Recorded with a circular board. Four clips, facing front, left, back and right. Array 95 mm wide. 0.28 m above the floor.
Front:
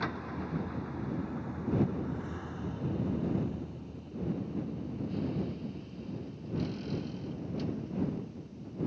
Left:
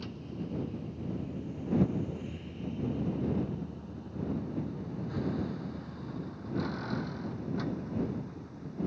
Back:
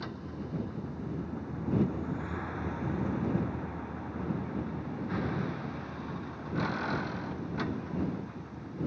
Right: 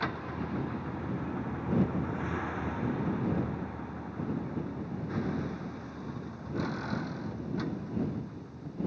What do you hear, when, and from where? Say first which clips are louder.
0.0 s a vehicle: right 5 dB, front 3 dB; 60° right; by 8.9 s straight behind